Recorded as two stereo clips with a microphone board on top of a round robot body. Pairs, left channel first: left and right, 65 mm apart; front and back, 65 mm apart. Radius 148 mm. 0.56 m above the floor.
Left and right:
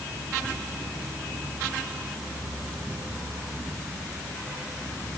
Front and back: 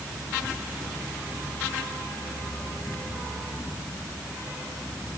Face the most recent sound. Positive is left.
No sound to turn to.